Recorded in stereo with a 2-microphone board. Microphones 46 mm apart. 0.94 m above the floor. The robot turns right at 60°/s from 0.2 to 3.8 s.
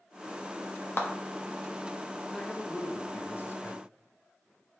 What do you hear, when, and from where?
1.0 s a clap: 55° left (ahead or behind), 1.2 m; by 1.1 s 60° left (ahead or behind), 1.2 m
2.3 s a man speaking: 10° left, 1.1 m; by 3.8 s 100° left, 1.1 m